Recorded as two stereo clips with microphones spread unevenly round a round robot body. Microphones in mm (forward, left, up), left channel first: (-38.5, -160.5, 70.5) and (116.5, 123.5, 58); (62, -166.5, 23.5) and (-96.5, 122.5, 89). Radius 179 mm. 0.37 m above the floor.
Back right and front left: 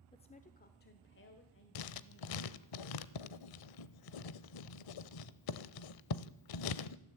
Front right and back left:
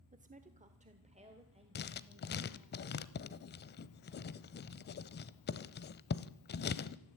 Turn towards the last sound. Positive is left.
turn(degrees=-115)